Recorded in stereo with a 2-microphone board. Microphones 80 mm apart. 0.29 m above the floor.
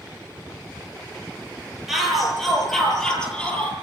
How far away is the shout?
About 8 m.